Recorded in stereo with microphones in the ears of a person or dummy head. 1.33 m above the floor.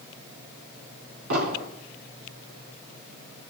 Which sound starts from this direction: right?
An explosion, at 1.3 s.